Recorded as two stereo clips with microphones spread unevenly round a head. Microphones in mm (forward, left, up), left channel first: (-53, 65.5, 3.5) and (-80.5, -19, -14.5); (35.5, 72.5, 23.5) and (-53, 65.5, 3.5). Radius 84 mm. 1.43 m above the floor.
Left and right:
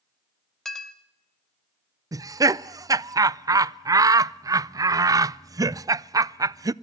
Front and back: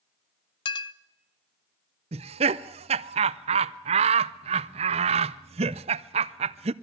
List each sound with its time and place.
0.7 s a clink: 10° right, 0.6 m
2.1 s laughter: 165° right, 0.5 m